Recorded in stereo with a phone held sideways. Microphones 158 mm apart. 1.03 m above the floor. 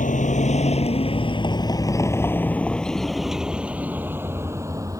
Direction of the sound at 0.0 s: 55° left (ahead or behind).